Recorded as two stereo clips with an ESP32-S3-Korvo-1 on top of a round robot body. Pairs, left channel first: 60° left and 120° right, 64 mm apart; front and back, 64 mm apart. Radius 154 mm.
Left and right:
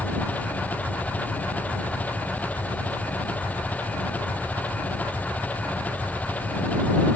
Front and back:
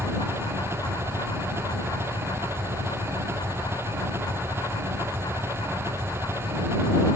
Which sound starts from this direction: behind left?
An engine running, at 0.0 s.